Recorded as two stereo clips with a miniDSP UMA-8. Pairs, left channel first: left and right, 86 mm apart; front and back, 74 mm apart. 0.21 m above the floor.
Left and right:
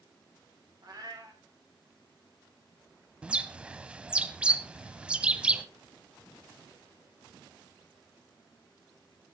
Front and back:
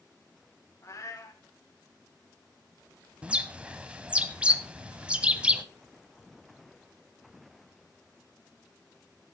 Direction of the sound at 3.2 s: 140° right.